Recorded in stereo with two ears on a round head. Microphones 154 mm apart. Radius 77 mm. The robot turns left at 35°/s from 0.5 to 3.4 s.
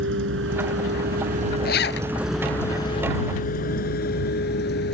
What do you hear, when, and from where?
0.0 s a vehicle: 75° right (ahead or behind); by 5.0 s 70° left (ahead or behind)
1.6 s a zipper: 60° left (ahead or behind); by 2.1 s 80° left